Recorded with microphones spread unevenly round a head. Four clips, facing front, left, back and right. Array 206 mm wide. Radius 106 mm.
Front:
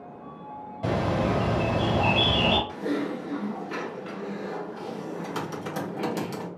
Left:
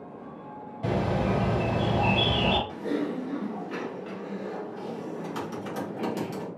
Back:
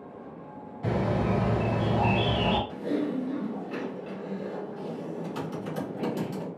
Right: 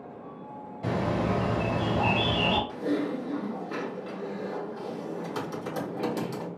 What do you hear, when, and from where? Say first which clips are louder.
0.8 s a bird: left 1 dB, front 2 dB; straight ahead, 1.8 m
2.7 s typing on a keyboard: right 1 dB, even; 30° right, 1.2 m